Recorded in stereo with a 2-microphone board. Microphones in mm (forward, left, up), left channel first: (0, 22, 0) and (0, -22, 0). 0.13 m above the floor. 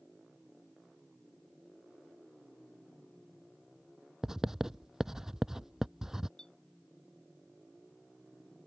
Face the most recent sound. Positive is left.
turn(degrees=15)  # may be behind; listen again after turning